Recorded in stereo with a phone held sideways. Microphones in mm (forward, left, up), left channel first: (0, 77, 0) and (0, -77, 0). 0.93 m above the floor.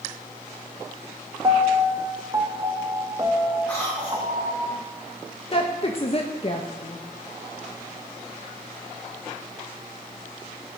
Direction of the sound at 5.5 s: 40° left (ahead or behind).